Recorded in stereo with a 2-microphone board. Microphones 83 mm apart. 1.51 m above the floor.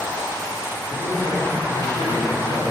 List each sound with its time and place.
0.9 s a man speaking: 65° left (ahead or behind), 4.5 m